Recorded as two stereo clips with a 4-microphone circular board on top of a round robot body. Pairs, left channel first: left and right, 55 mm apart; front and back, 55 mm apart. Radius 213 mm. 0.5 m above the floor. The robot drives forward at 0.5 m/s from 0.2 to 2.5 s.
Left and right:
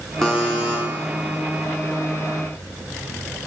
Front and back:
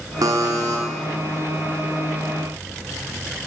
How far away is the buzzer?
About 0.5 m.